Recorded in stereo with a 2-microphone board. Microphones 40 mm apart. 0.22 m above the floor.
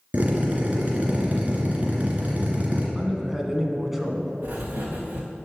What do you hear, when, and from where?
0.1 s a drill: 40° right (ahead or behind), 2 m
3.0 s a man speaking: 10° right (ahead or behind), 1.6 m
4.4 s writing: 50° right (ahead or behind), 3.5 m